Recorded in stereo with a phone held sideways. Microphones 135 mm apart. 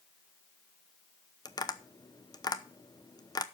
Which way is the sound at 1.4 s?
30° left (ahead or behind).